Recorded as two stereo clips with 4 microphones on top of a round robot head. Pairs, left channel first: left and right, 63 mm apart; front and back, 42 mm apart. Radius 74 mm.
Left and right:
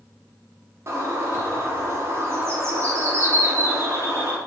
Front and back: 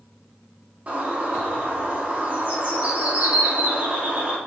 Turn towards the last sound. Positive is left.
turn(degrees=-130)